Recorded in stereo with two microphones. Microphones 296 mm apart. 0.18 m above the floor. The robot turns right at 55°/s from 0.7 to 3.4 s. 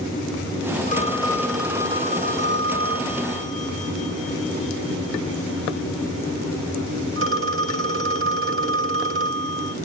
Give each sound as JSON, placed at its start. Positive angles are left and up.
{"t": 0.9, "sound": "a phone ringing", "azimuth_deg": 140, "distance_m": 1.3}